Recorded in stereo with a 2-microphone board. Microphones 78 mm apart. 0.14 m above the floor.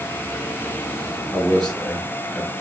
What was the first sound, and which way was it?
A man speaking, centre (ahead or behind).